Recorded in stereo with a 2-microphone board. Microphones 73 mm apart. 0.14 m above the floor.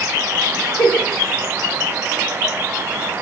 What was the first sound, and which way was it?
A giggle, 60° left (ahead or behind).